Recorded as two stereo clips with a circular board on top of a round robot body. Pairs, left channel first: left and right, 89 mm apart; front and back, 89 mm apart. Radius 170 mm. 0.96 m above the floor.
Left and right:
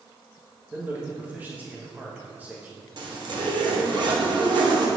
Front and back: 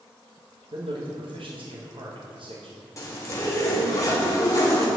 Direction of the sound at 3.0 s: 55° right.